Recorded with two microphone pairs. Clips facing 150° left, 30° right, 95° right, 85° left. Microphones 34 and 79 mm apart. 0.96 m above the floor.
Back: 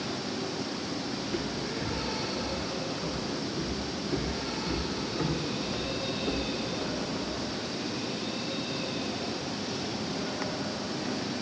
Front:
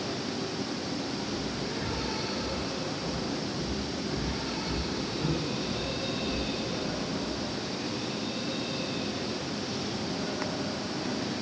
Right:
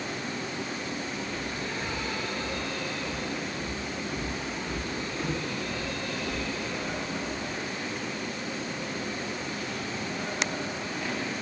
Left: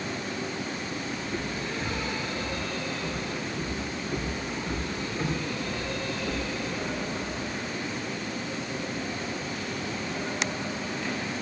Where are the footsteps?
160° left, 4.5 m; by 7.5 s 175° left, 11.5 m.